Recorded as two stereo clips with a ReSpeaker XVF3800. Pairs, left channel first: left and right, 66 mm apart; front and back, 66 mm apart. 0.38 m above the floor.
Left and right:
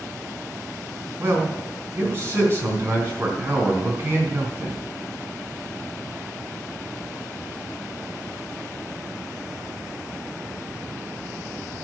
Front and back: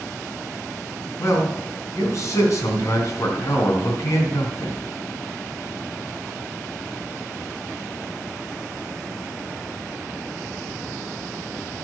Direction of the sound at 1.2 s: 40° right.